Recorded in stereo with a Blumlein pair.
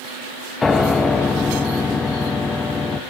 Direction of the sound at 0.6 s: 10° left.